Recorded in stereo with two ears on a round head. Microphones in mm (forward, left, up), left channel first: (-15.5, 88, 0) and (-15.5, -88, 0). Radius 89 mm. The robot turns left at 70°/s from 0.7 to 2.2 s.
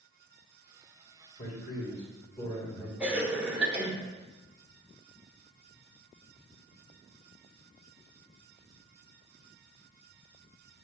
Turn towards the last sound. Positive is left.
turn(degrees=-10)  # may be behind; listen again after turning